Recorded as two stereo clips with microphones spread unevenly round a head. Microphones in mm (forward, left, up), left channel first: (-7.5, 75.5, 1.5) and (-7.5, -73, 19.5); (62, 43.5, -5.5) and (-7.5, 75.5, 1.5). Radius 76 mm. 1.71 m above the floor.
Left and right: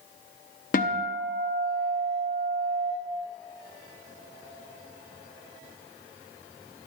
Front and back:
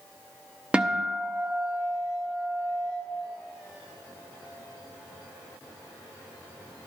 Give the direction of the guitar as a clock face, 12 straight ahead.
9 o'clock.